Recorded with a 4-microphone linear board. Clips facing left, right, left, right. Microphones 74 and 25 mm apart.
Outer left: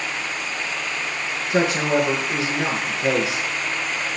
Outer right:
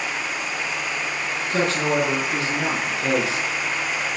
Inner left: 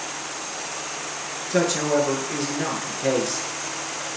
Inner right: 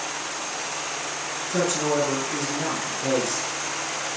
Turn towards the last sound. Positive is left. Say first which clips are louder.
# outer left 2 dB, inner left 3 dB
turn(degrees=15)  # may be behind; listen again after turning